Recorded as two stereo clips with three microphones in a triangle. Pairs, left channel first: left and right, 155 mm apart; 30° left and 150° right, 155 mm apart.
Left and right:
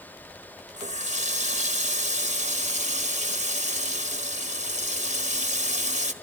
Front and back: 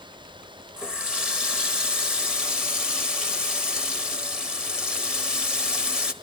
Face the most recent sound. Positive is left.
turn(degrees=-65)